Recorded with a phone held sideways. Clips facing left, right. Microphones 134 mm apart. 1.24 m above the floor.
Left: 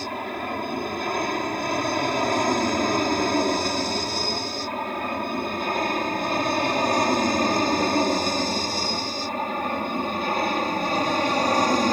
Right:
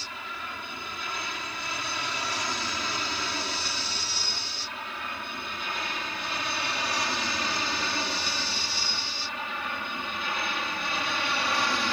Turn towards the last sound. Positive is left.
turn(degrees=40)  # may be behind; listen again after turning